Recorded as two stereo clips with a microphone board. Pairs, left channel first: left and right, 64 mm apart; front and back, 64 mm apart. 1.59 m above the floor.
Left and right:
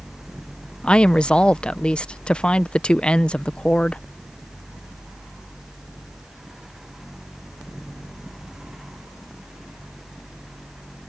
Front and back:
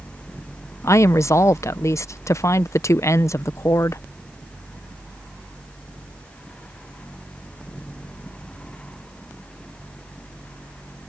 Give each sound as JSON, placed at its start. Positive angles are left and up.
{"t": 0.8, "sound": "a woman speaking", "azimuth_deg": 20}